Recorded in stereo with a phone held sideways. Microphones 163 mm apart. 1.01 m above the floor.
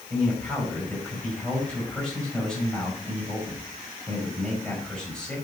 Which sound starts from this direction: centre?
A man speaking, at 0.1 s.